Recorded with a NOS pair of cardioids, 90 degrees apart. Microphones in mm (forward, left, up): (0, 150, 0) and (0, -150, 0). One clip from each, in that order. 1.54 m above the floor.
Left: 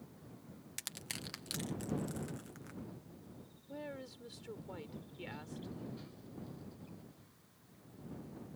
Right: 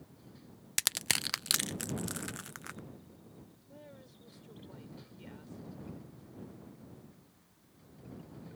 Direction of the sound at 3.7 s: 65° left.